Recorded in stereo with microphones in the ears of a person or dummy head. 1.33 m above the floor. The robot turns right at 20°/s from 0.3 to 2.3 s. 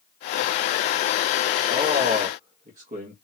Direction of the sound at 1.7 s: 30° right (ahead or behind).